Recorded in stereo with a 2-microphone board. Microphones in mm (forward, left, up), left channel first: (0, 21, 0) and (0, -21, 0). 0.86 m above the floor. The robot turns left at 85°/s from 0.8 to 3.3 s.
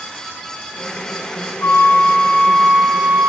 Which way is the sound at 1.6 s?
100° left.